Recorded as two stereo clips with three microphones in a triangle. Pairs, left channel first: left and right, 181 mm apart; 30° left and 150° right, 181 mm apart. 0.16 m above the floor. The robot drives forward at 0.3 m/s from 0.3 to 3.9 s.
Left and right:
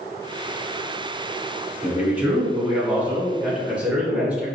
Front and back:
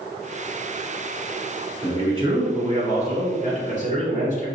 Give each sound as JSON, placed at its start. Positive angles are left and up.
{"t": 1.8, "sound": "a man speaking", "azimuth_deg": -165, "distance_m": 1.5}